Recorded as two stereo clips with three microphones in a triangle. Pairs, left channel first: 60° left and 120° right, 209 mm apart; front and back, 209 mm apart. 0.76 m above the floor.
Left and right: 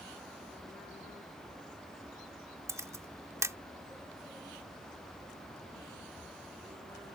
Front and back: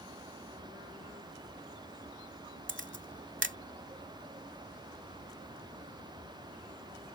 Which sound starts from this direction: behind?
A camera shutter, at 2.7 s.